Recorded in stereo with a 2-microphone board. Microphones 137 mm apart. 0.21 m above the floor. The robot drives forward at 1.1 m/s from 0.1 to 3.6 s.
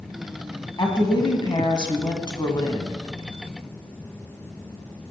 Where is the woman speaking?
30° left (ahead or behind), 1.9 m; by 3.0 s 25° left (ahead or behind), 2.5 m.